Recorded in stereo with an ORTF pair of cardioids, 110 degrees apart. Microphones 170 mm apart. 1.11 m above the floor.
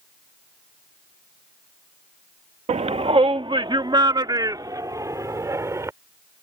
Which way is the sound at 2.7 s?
40° right.